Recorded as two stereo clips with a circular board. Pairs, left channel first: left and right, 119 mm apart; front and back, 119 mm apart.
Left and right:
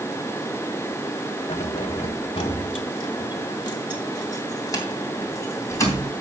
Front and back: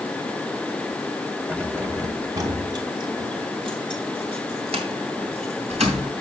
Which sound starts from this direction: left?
Keys jangling, at 1.5 s.